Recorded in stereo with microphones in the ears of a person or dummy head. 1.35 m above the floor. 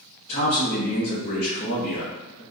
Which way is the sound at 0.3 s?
45° left (ahead or behind).